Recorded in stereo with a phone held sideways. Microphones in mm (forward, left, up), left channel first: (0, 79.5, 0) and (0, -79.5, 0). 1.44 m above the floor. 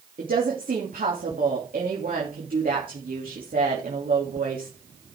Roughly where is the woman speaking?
Right.